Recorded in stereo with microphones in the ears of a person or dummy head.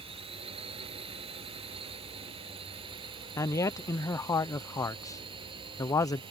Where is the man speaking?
15° left (ahead or behind).